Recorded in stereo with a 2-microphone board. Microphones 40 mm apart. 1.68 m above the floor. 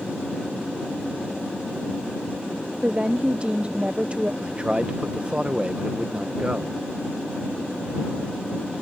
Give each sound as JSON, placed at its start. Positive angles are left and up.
{"t": 2.8, "sound": "a woman speaking", "side_deg": -25}
{"t": 4.4, "sound": "a man speaking", "side_deg": -25}